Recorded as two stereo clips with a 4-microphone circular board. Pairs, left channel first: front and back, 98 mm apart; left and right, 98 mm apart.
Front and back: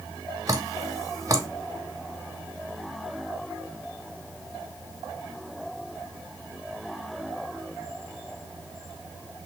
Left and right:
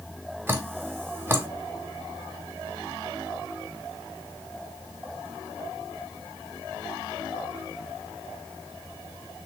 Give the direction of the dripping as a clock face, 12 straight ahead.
5 o'clock.